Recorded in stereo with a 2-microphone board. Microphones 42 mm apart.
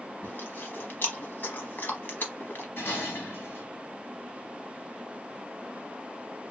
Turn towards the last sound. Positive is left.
turn(degrees=75)  # may be behind; listen again after turning